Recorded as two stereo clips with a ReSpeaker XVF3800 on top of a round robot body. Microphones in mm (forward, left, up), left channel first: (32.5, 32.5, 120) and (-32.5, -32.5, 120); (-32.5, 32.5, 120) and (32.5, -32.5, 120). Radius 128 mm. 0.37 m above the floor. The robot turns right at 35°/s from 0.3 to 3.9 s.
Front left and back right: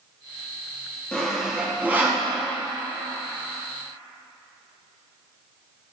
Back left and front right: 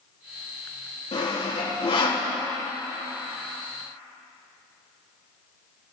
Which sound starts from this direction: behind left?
Sawing, at 1.1 s.